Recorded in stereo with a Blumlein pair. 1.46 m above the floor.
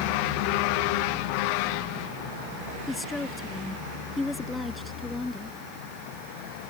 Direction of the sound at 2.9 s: 10° left.